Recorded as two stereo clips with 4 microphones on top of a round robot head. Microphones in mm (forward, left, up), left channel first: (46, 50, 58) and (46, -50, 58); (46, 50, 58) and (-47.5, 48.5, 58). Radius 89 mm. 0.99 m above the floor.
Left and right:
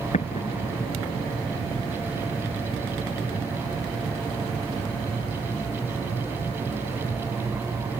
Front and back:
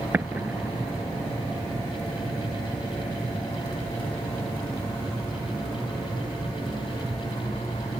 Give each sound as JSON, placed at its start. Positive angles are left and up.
{"t": 0.1, "sound": "an explosion", "azimuth_deg": 110}